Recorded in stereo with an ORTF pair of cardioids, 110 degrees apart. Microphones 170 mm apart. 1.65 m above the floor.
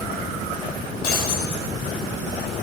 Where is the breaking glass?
65° left, 7.5 m.